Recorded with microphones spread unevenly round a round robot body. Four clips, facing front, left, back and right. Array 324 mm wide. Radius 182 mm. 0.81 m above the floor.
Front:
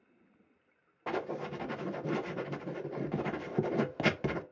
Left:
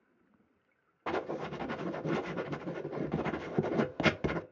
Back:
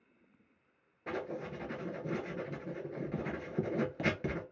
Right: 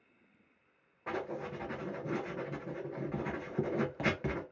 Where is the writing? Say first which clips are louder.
Left 3 dB, front 3 dB; 25° left, 0.7 m.